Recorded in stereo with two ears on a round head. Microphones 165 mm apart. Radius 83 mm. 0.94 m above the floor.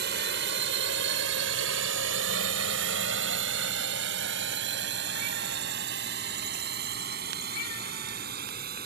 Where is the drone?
65° right (ahead or behind); by 8.9 s 55° right (ahead or behind).